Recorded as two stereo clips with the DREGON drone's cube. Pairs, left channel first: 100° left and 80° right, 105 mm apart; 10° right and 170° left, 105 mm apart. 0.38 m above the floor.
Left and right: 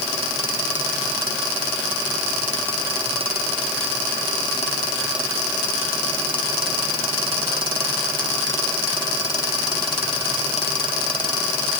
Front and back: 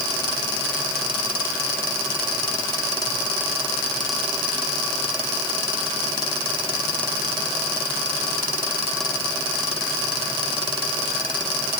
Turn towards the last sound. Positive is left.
No sound to turn to.